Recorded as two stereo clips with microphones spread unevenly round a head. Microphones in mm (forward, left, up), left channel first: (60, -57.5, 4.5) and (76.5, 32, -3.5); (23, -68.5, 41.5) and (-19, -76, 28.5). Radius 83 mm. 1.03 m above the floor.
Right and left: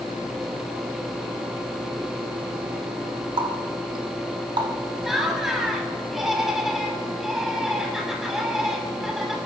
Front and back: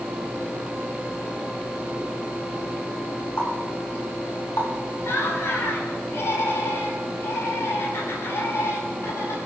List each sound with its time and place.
3.4 s a running tap: 50° left, 2.5 m
5.0 s laughter: 5° right, 7 m